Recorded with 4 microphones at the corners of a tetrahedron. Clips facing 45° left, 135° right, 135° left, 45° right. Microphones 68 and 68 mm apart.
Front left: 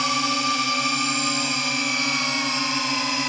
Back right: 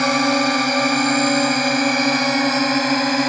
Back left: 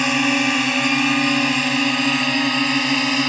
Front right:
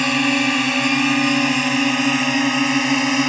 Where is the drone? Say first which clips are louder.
Back right 6 dB, even; 140° right; by 3.3 s 120° right.